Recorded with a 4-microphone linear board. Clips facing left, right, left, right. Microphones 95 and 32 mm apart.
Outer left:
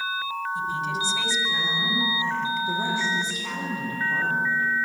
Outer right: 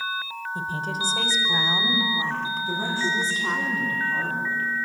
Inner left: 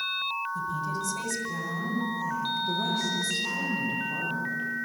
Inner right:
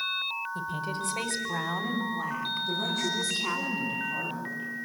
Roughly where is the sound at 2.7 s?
Centre.